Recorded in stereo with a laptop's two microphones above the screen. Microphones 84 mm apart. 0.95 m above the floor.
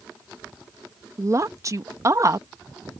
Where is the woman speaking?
35° right (ahead or behind).